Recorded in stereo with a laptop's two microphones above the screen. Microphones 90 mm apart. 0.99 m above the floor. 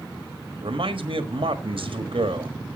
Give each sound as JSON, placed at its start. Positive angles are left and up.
{"t": 0.6, "sound": "a man speaking", "side_deg": -80, "distance_m": 1.4}